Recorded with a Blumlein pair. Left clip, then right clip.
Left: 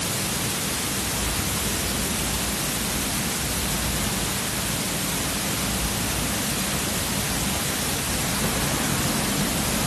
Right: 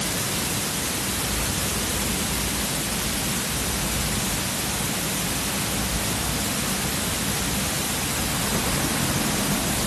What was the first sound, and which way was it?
Only background noise.